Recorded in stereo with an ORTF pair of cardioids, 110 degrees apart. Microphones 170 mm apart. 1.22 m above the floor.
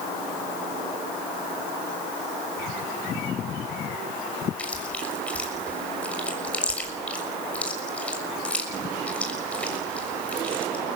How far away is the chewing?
About 6 m.